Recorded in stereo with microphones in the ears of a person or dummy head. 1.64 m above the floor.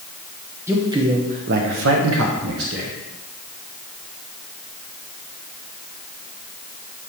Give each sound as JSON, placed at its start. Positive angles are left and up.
{"t": 0.7, "sound": "a man speaking", "side_deg": -5, "distance_m": 1.1}